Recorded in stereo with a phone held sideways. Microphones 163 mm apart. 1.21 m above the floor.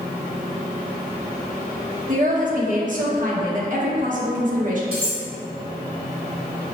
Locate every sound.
2.1 s a woman speaking: 55° right (ahead or behind), 1.0 m
4.9 s cutlery clinking: 35° right (ahead or behind), 1.5 m